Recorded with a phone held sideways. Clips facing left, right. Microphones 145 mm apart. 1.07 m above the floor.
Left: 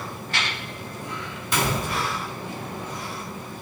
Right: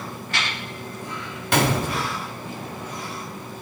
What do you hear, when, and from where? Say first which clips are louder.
1.5 s a gunshot: right 4 dB; 65° right (ahead or behind), 1.3 m